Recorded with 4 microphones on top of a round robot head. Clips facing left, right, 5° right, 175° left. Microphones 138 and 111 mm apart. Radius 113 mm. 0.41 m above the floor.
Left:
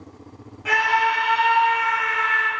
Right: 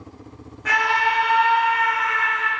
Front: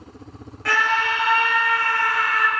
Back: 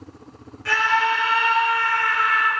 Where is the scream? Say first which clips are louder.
Left 1 dB, back 1 dB; 10° left, 2.5 m; by 2.5 s 35° left, 1.7 m.